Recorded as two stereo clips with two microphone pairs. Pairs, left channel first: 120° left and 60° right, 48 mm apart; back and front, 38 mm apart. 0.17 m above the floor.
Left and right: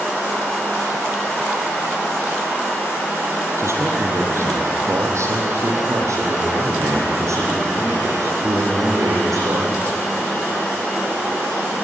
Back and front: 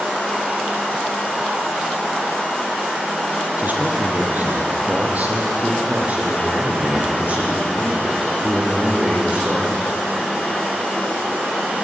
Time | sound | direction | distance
3.6 | a man speaking | 35° right | 5 m